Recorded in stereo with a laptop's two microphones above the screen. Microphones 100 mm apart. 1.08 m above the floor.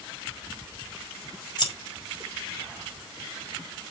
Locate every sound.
1.6 s scissors: 50° left (ahead or behind), 5.5 m